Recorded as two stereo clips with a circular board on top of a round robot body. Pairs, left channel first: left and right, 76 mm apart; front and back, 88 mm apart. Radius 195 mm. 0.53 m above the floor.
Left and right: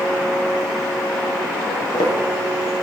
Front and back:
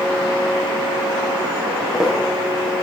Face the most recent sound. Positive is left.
turn(degrees=95)